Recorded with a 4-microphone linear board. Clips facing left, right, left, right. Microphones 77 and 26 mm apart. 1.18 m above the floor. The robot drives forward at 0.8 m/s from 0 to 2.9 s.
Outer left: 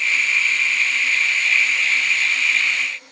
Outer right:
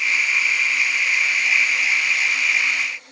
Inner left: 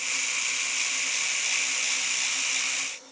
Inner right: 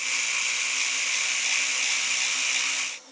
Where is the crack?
I don't hear a crack.